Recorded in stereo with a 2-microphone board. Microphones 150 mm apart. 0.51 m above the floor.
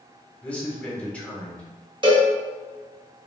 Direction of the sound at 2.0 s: 30° right (ahead or behind).